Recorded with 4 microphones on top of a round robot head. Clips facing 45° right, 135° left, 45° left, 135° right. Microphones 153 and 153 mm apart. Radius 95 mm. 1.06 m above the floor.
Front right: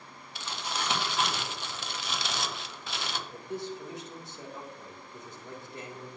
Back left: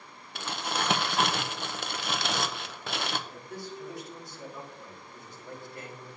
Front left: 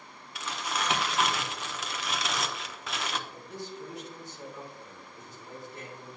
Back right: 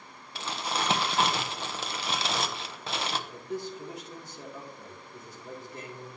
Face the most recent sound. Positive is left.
turn(degrees=-115)